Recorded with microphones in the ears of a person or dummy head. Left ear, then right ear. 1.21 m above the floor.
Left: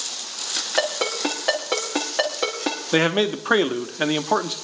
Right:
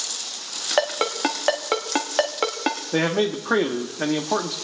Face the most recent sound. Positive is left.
turn(degrees=60)  # may be behind; listen again after turning